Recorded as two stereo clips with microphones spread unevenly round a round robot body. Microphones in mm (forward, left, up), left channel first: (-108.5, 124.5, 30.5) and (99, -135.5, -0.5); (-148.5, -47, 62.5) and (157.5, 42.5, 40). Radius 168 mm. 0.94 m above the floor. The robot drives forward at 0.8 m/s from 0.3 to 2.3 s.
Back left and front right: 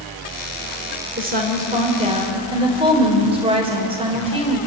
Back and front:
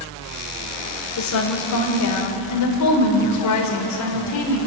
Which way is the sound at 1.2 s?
115° right.